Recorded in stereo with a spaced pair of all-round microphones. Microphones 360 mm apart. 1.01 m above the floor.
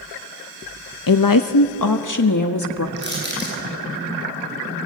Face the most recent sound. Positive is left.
turn(degrees=-30)  # may be behind; listen again after turning